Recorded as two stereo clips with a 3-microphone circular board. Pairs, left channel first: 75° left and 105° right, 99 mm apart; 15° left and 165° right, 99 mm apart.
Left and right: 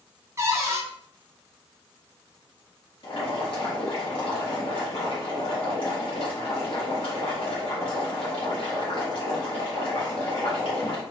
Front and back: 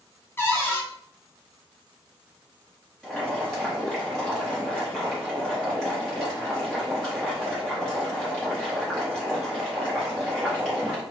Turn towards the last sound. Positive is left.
turn(degrees=100)